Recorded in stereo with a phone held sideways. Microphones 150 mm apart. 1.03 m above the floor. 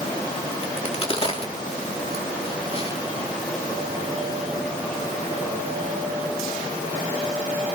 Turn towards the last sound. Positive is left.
turn(degrees=40)  # may be behind; listen again after turning